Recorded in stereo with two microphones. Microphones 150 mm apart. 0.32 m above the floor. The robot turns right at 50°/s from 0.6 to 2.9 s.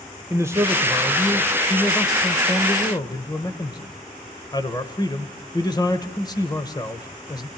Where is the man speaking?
20° right (ahead or behind), 1.3 m; by 7.5 s 25° left (ahead or behind), 1.3 m.